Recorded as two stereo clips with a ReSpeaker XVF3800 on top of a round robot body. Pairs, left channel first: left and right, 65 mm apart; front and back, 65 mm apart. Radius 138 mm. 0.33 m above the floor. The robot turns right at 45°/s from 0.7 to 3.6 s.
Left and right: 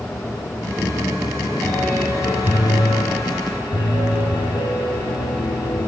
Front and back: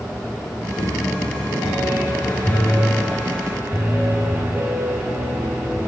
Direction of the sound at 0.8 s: 20° right.